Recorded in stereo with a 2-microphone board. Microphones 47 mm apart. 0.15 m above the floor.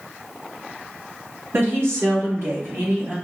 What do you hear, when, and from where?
1.5 s a woman speaking: 60° right (ahead or behind), 2.5 m; by 3.1 s 35° right (ahead or behind), 3 m